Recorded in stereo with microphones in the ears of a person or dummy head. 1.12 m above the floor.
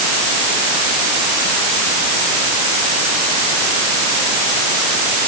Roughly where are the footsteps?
I don't hear footsteps.